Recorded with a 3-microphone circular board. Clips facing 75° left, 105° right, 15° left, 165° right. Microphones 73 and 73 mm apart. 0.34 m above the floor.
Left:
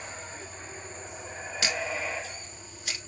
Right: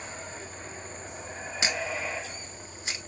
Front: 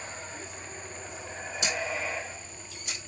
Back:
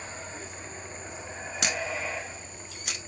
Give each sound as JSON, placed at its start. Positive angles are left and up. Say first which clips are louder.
{"t": 1.6, "sound": "a camera shutter", "louder": "even, even", "azimuth_deg": -170, "distance_m": 0.7}